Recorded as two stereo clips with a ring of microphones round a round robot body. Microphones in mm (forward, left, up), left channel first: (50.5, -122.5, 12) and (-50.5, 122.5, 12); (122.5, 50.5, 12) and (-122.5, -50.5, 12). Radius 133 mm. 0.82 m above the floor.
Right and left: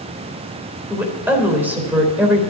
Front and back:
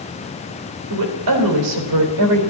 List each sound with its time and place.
0.9 s a woman speaking: 165° right, 3.5 m